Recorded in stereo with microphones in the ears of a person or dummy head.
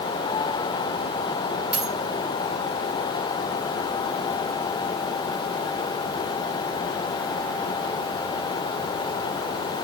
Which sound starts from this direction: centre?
A dropped coin, at 1.7 s.